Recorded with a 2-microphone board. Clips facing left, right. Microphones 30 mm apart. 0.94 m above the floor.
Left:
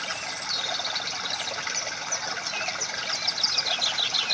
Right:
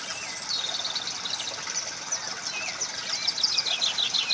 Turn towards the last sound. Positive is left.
turn(degrees=25)  # may be behind; listen again after turning